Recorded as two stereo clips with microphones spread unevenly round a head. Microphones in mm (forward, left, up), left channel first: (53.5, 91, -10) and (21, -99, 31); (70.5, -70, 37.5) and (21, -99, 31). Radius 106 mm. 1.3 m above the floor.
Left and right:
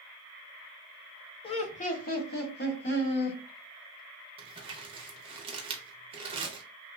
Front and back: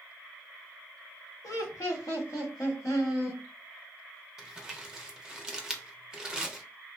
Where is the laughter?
30° left, 0.6 m; by 3.4 s 65° left, 1.5 m.